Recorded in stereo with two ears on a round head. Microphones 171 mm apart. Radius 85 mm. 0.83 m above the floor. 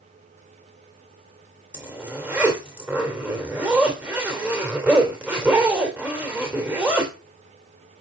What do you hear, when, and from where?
1.7 s a zipper: 10° right (ahead or behind), 2.5 m